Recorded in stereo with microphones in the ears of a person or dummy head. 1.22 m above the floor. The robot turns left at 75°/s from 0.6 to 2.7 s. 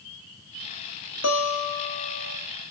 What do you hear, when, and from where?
1.2 s a guitar: 90° left, 1.9 m; by 2.4 s 5° left, 1.9 m